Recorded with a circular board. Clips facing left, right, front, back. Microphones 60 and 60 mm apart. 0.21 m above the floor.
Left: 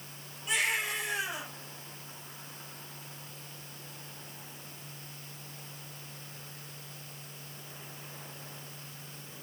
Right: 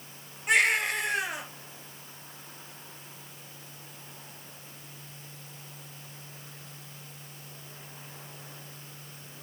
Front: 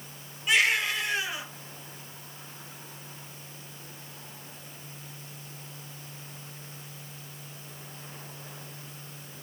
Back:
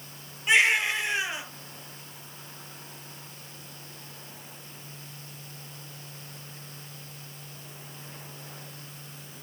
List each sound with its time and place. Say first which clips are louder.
0.5 s a baby crying: right 7 dB, back 2 dB; 115° right, 3 m